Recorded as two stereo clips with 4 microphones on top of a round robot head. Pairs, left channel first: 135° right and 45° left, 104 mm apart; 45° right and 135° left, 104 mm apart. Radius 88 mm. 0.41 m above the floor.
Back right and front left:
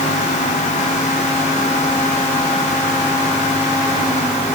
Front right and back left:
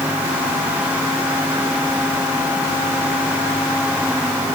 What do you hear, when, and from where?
Only background noise.